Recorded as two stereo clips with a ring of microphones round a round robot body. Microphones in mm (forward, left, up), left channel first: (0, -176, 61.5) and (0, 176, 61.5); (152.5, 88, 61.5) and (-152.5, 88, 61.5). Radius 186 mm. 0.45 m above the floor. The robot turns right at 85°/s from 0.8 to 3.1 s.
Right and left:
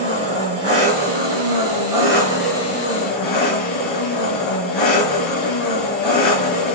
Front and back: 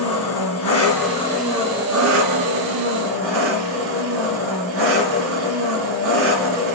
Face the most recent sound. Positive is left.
turn(degrees=-125)